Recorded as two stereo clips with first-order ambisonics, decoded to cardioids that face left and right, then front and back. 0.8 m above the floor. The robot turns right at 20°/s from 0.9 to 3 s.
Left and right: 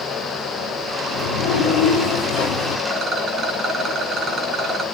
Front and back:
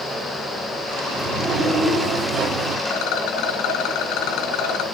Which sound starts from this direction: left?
A sliding door, at 1.1 s.